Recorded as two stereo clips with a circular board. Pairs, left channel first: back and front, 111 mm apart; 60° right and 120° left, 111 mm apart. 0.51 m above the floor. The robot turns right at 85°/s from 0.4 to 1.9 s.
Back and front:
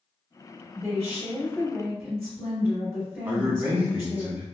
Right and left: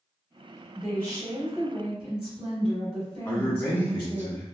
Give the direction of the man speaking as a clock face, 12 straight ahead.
1 o'clock.